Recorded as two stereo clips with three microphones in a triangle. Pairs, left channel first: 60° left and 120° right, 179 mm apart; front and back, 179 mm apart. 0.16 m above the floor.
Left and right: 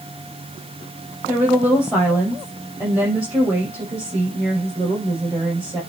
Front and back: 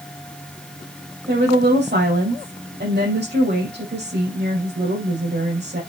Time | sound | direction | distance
1.3 | a woman speaking | 160° left | 5.5 m